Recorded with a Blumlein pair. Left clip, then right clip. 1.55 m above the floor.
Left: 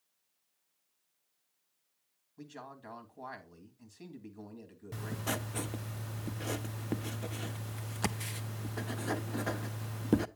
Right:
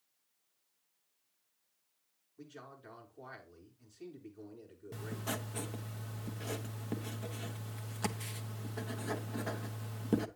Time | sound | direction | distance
2.4 | a man speaking | 65° left | 2.5 m
4.9 | writing | 15° left | 0.5 m